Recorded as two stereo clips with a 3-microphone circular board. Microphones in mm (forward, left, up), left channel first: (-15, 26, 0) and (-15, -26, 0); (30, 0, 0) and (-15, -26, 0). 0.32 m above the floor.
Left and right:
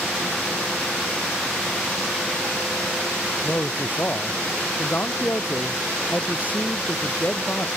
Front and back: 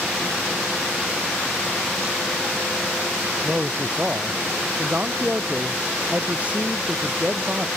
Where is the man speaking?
145° left.